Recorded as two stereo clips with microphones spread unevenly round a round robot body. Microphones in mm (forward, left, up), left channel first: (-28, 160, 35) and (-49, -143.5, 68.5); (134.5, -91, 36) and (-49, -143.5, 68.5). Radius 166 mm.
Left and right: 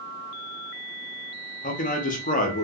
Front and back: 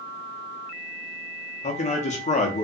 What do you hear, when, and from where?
1.6 s a man speaking: 40° left, 0.8 m